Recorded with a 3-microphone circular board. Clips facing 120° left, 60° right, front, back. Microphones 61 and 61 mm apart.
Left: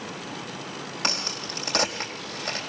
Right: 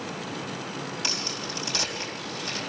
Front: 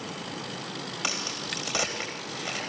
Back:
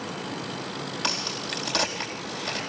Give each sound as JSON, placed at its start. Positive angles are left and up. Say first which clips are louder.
{"t": 1.0, "sound": "a crack", "louder": "left 2 dB, back 1 dB", "azimuth_deg": 80, "distance_m": 4.0}